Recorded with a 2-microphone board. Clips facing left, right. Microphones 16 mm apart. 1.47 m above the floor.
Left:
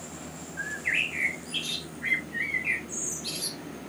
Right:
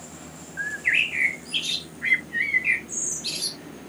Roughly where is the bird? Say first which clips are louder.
Right 5 dB; right.